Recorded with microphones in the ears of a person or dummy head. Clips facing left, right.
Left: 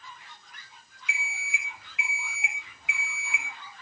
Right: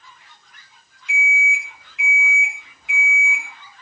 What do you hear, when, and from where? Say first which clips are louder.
1.1 s an alarm clock: right 11 dB; centre (ahead or behind), 1.3 m